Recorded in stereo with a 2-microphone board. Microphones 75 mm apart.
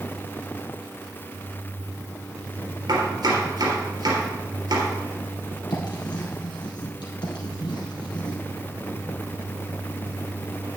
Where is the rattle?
I don't hear a rattle.